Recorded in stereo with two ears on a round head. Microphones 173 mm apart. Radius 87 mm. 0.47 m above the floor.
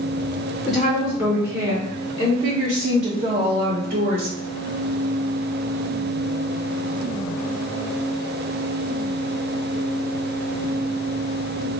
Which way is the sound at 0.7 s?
5° left (ahead or behind).